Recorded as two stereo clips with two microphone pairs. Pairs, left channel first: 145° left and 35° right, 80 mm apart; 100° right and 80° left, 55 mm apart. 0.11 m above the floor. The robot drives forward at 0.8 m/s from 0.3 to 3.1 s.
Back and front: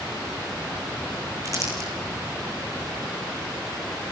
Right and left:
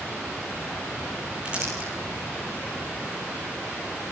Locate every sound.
1.4 s crumpling: 10° left, 6 m; by 1.9 s 15° left, 5.5 m